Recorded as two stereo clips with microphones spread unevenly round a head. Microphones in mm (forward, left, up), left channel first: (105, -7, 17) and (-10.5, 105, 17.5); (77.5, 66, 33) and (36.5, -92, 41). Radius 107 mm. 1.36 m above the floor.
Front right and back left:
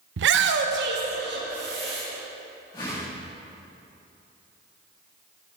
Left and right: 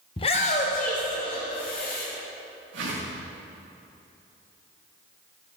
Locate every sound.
0.2 s a shout: 145° left, 0.6 m; by 2.0 s 120° left, 2 m
2.7 s a whoosh: 120° right, 5 m